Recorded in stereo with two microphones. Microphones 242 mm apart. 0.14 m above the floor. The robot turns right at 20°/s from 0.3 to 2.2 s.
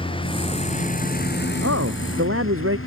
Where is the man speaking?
75° right (ahead or behind); by 2.8 s 65° right (ahead or behind).